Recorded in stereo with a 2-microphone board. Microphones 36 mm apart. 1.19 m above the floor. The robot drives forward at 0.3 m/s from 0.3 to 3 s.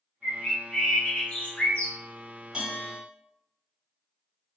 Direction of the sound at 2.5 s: 20° right (ahead or behind).